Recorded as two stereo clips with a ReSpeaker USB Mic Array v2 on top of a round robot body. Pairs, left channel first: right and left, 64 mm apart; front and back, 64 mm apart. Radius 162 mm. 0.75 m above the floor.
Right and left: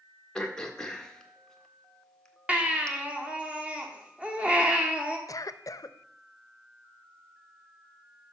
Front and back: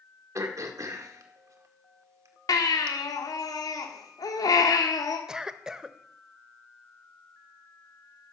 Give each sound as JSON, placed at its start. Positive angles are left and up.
{"t": 0.3, "sound": "throat clearing", "azimuth_deg": -165, "distance_m": 1.7}
{"t": 2.5, "sound": "a baby crying", "azimuth_deg": 20, "distance_m": 2.0}
{"t": 5.3, "sound": "a cough", "azimuth_deg": -100, "distance_m": 0.8}